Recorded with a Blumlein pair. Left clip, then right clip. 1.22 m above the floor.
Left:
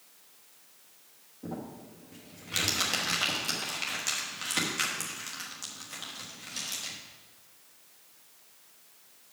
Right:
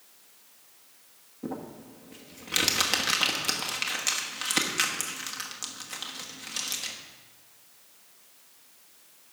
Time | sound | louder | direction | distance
1.4 | crumpling | right 3 dB | 15° right | 1.3 m